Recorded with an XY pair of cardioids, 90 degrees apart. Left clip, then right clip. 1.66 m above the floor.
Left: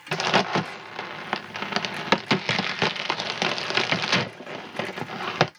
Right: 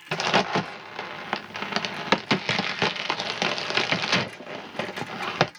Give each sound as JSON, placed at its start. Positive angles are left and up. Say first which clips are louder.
{"t": 0.1, "sound": "a crack", "louder": "left 1 dB", "azimuth_deg": 10, "distance_m": 0.5}